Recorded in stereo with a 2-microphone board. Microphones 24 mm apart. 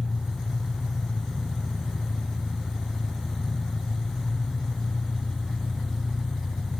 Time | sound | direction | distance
0.0 | an engine running | 30° right (ahead or behind) | 4 m